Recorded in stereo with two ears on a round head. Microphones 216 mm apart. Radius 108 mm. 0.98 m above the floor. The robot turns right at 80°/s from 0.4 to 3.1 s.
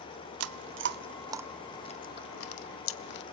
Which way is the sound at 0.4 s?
65° right (ahead or behind).